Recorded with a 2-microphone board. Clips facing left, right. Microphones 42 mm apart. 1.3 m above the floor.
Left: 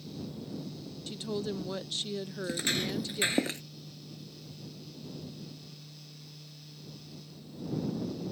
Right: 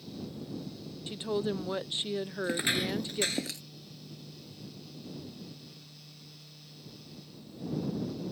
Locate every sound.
1.1 s a woman speaking: 20° right (ahead or behind)
2.4 s footsteps: 30° right (ahead or behind); by 3.6 s 40° left (ahead or behind)